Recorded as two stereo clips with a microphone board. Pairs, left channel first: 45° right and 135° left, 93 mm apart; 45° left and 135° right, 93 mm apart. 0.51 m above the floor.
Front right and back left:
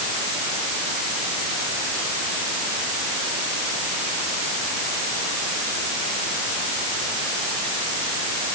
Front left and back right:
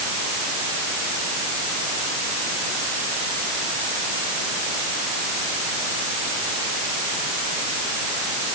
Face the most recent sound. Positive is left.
No sound to turn to.